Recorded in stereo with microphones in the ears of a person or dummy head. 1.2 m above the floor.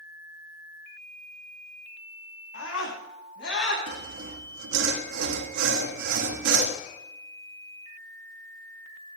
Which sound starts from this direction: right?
Sawing, at 3.9 s.